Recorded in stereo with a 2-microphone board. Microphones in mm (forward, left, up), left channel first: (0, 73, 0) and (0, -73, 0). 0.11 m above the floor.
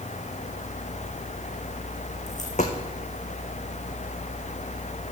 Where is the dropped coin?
55° left (ahead or behind), 2 m.